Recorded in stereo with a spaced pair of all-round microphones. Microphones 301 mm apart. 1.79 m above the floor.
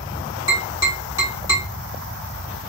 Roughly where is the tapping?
Centre.